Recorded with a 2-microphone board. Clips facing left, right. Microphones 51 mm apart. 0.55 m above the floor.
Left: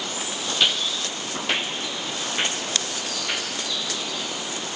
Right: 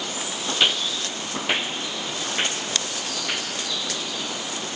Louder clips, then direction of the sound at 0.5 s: Right 1 dB; 15° right (ahead or behind).